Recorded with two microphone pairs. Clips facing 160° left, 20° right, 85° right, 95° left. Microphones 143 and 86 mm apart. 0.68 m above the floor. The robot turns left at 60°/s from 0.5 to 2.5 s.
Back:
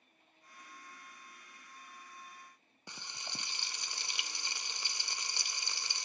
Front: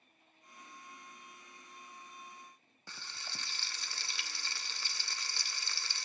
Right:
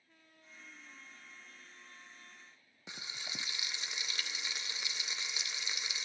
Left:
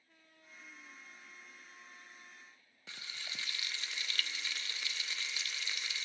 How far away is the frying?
About 0.5 m.